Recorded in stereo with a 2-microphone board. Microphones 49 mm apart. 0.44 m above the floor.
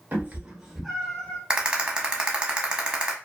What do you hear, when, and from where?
0.1 s a cat meowing: 40° right (ahead or behind), 0.7 m; by 1.4 s 20° left (ahead or behind), 0.9 m
1.5 s a rattle: 20° right (ahead or behind), 0.5 m